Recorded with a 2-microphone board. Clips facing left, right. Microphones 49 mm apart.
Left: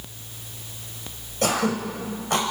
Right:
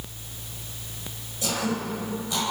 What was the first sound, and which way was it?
Throat clearing, 60° left (ahead or behind).